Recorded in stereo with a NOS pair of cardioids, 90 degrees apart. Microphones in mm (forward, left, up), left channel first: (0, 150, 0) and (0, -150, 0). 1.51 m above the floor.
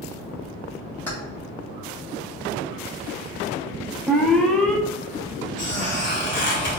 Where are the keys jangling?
5° left, 1.4 m.